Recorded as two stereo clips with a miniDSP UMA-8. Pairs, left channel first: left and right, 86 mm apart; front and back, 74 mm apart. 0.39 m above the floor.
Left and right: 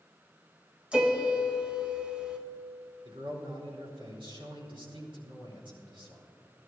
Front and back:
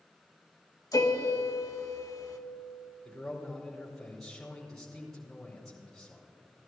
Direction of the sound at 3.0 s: 85° right.